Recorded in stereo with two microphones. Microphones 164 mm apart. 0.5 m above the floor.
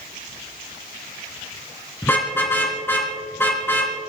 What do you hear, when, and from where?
2.0 s a car horn: 15° left (ahead or behind), 3 m